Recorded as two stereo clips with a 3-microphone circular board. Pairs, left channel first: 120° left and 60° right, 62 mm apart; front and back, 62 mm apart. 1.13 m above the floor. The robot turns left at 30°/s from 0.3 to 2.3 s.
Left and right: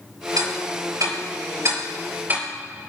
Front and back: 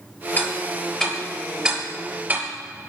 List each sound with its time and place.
0.4 s ticking: 60° right, 5.5 m; by 2.9 s 120° right, 5.5 m